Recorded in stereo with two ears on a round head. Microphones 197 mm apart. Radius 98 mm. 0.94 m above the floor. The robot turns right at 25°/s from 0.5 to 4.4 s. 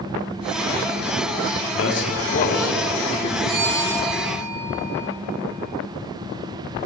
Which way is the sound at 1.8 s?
60° left (ahead or behind).